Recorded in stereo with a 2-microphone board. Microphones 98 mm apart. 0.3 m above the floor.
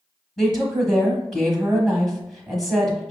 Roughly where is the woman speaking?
Centre.